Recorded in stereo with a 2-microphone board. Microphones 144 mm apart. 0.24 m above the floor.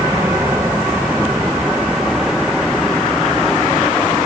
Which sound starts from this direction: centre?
An aircraft, at 0.0 s.